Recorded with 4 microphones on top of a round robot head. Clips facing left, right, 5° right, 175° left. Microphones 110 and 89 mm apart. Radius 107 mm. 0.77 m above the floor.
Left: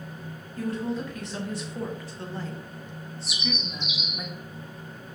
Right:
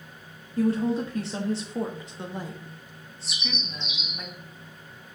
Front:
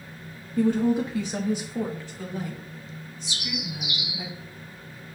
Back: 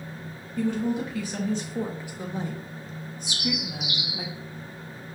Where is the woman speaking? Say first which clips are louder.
Right 6 dB, front 4 dB; 40° right, 1.4 m; by 4.3 s 170° left, 2.0 m.